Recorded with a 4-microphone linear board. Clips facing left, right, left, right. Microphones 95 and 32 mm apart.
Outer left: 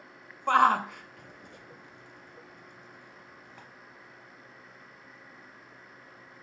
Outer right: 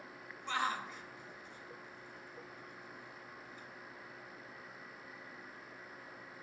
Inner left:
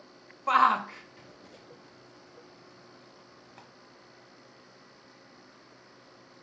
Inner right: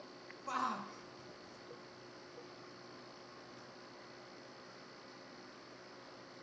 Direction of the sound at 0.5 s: 60° left (ahead or behind).